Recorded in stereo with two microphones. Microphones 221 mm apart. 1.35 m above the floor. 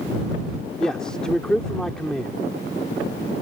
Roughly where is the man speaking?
Centre.